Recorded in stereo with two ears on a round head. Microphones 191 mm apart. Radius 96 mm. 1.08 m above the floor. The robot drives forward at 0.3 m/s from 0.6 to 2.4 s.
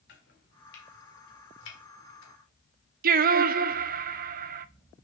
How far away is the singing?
About 0.5 m.